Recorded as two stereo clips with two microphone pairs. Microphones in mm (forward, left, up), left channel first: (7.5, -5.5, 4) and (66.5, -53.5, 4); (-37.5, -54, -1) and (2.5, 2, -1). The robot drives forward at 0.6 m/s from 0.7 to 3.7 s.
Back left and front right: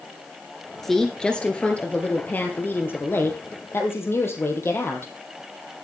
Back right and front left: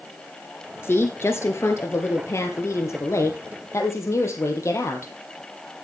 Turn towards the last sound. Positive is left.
turn(degrees=-165)